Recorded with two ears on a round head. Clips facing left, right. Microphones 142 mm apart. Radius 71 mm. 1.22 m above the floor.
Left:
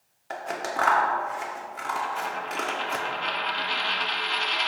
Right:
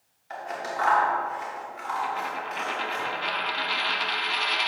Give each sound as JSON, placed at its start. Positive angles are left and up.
{"t": 0.3, "sound": "scissors", "side_deg": 60, "distance_m": 1.3}
{"t": 2.0, "sound": "a dropped coin", "side_deg": -5, "distance_m": 0.8}